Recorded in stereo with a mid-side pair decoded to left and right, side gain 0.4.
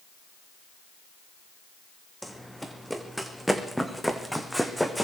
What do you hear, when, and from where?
2.2 s running footsteps: straight ahead, 4 m